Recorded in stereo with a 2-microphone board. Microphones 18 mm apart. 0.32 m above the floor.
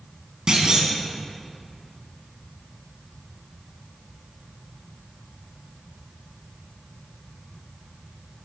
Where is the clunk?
40° right (ahead or behind), 1.3 m.